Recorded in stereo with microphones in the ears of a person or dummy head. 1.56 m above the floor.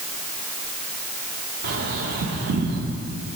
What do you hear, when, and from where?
1.6 s a bird: 70° right (ahead or behind), 1.7 m